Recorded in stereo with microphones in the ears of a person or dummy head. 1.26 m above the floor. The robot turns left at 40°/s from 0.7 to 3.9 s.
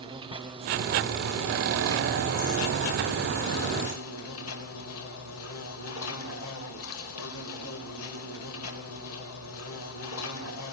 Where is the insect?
145° right, 4 m; by 10.7 s 85° left, 4 m.